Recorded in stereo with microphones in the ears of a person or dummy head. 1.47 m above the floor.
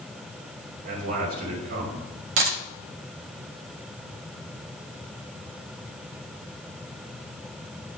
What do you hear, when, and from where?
0.8 s a man speaking: 50° right (ahead or behind), 4 m
2.4 s a dropped coin: 50° right (ahead or behind), 1.1 m